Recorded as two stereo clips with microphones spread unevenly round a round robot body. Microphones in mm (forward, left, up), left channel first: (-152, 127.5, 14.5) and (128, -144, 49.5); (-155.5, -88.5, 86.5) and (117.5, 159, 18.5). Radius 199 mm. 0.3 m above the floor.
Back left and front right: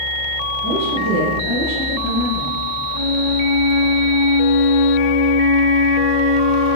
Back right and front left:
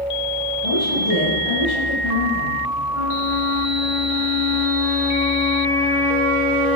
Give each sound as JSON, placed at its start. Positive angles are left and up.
{"t": 0.6, "sound": "a woman speaking", "azimuth_deg": -105, "distance_m": 8.0}
{"t": 2.9, "sound": "a flute", "azimuth_deg": 90, "distance_m": 4.0}